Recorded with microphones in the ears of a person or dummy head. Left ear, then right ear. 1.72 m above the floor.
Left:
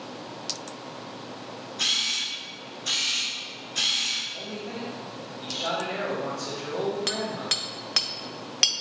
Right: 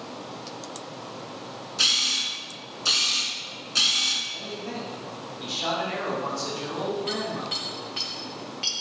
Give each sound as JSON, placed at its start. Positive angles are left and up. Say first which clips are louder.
{"t": 1.8, "sound": "a camera shutter", "louder": "right 3 dB", "side_deg": -60, "distance_m": 2.5}
{"t": 4.3, "sound": "a man speaking", "louder": "right 1 dB", "side_deg": -90, "distance_m": 2.5}
{"t": 7.1, "sound": "hammering", "louder": "left 1 dB", "side_deg": 50, "distance_m": 0.8}